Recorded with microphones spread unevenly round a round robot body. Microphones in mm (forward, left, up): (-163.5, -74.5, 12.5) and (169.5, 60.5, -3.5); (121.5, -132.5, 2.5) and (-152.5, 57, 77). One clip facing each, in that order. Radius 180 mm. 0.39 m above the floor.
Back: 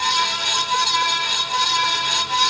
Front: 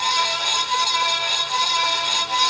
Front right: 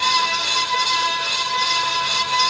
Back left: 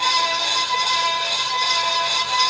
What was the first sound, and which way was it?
Only background noise.